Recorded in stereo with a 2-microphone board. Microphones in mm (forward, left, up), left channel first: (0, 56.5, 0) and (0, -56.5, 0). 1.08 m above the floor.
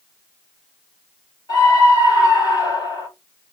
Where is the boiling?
No boiling in this recording.